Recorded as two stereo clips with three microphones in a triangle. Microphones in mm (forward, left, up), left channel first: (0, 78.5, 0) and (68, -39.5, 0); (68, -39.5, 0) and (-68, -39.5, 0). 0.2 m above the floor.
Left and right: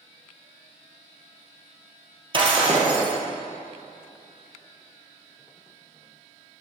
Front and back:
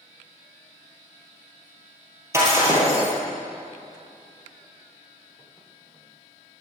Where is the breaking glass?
110° right, 2.5 m.